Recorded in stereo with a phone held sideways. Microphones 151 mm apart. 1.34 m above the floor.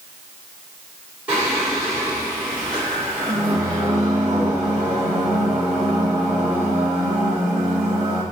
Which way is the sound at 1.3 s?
10° right (ahead or behind).